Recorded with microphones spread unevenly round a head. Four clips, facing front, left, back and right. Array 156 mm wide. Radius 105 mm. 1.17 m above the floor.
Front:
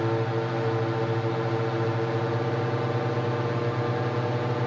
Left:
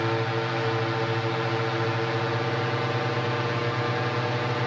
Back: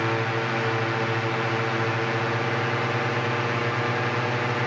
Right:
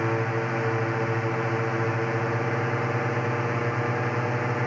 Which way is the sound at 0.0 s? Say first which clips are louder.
Even, back 1 dB; 5° right.